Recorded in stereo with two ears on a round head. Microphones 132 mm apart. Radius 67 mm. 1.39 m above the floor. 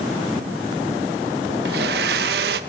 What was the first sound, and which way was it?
A blender, 75° right (ahead or behind).